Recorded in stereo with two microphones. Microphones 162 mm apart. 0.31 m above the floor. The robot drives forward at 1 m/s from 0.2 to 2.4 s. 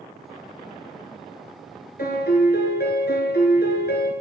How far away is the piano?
About 1.0 m.